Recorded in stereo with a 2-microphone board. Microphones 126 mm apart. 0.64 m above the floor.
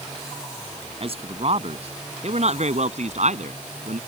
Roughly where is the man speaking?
Right.